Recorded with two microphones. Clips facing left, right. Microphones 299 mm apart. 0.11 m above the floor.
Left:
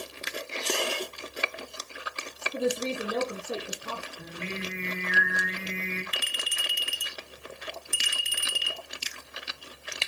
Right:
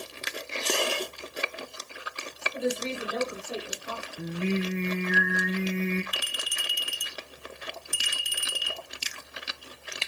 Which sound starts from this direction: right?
Singing, at 4.2 s.